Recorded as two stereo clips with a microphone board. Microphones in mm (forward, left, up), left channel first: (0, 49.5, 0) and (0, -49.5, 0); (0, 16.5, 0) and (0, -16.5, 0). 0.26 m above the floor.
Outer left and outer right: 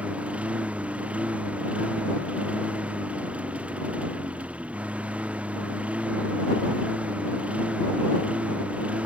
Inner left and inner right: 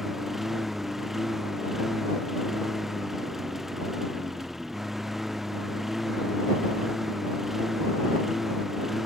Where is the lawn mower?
10° right (ahead or behind).